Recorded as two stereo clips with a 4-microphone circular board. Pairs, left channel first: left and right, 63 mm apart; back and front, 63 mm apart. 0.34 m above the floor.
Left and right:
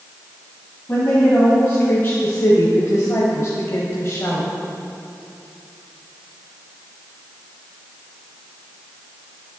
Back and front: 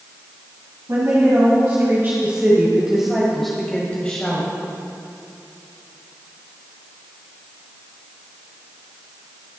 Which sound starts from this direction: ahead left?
A woman speaking, at 0.9 s.